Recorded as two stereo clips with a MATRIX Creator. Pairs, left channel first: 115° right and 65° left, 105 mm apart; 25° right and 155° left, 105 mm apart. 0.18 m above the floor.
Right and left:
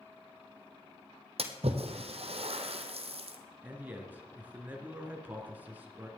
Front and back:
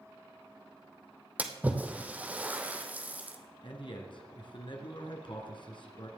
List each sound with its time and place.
1.4 s a splash: 80° left, 1.4 m
3.6 s a man speaking: straight ahead, 2 m